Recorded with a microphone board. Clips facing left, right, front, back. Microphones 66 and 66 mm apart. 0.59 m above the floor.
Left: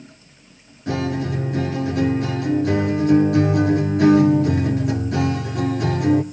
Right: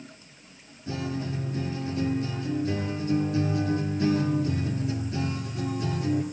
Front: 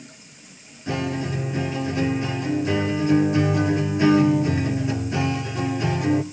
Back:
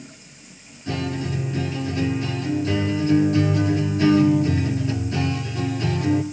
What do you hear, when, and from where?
0.9 s a guitar: 70° left, 2 m